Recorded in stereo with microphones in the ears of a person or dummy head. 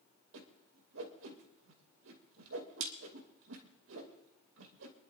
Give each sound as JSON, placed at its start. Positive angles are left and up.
{"t": 0.3, "sound": "a whoosh", "side_deg": -70, "distance_m": 2.5}